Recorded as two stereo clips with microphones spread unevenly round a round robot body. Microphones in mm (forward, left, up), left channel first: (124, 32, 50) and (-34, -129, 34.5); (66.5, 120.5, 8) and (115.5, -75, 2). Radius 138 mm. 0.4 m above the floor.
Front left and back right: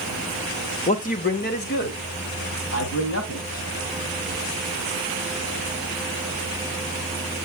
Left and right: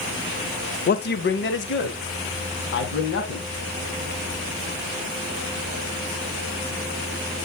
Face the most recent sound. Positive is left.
turn(degrees=90)